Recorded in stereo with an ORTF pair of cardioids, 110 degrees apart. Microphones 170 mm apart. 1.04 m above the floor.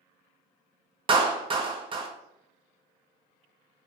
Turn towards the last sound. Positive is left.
turn(degrees=-30)